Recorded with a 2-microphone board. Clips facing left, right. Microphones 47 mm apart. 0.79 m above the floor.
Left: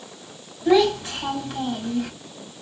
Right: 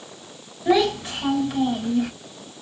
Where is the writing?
I don't hear writing.